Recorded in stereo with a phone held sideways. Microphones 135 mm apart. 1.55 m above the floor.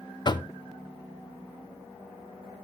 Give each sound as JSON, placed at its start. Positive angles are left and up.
{"t": 0.2, "sound": "knocking", "side_deg": 35, "distance_m": 0.6}